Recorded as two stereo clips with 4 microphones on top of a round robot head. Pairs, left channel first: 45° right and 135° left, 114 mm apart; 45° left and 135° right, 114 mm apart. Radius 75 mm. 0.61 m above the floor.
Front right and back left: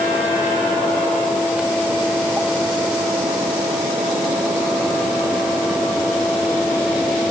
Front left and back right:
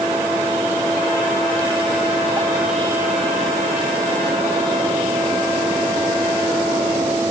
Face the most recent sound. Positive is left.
No sound to turn to.